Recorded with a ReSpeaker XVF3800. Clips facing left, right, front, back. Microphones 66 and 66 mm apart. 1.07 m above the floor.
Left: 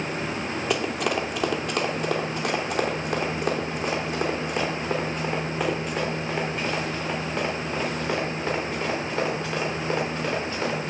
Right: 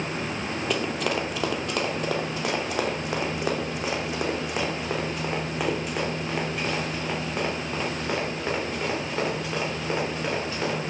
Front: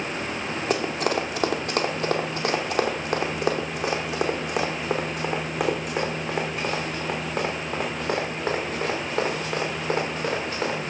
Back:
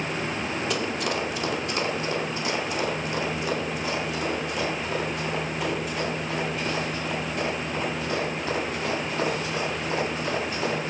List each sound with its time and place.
0.7 s running footsteps: 10° left, 1.3 m; by 10.9 s 5° right, 6 m